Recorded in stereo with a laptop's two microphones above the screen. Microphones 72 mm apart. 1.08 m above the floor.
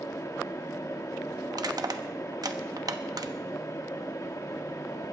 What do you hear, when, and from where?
0.0 s a fan: 50° left (ahead or behind), 1.4 m
1.5 s crushing: 65° right (ahead or behind), 0.9 m